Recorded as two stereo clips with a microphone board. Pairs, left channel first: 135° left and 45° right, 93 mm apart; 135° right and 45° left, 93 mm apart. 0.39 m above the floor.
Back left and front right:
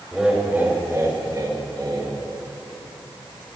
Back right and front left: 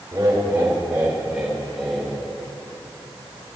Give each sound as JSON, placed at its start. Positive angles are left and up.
{"t": 0.1, "sound": "laughter", "azimuth_deg": 35, "distance_m": 1.6}